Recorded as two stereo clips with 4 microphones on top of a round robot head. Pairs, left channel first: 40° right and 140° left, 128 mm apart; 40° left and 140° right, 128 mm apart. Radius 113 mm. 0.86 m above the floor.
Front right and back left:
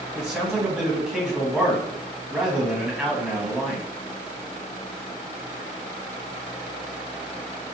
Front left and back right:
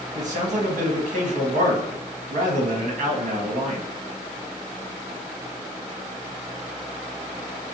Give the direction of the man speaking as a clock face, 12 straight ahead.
4 o'clock.